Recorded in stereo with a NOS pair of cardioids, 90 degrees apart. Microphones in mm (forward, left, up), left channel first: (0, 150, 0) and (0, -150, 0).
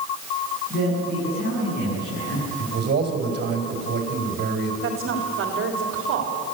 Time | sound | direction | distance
0.7 | a man speaking | 35° left | 9.5 m
2.6 | a man speaking | 35° right | 5.5 m
4.8 | a woman speaking | 45° right | 3.5 m